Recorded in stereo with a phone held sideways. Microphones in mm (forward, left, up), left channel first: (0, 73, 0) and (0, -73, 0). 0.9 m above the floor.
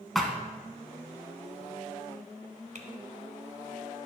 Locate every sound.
0.1 s a thud: centre (ahead or behind), 1.0 m
2.8 s typing on a keyboard: 55° right (ahead or behind), 1.2 m